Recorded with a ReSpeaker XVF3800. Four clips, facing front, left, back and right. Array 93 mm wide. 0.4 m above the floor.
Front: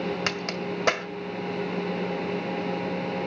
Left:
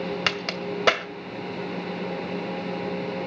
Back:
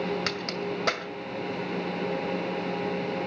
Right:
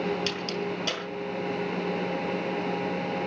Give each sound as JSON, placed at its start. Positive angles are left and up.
{"t": 0.3, "sound": "a crack", "azimuth_deg": 80, "distance_m": 1.5}